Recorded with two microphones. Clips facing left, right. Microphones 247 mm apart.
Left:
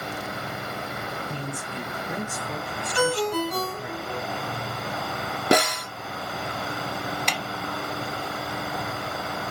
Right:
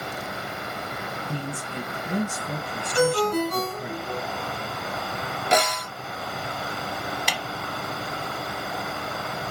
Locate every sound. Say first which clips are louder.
1.3 s a man speaking: right 1 dB; 45° right (ahead or behind), 3 m
3.0 s a ringtone: right 3 dB; 55° right (ahead or behind), 1.6 m
5.5 s a snare drum: left 3 dB; 65° left (ahead or behind), 0.8 m
7.3 s a snare drum: left 1 dB; 5° right (ahead or behind), 0.7 m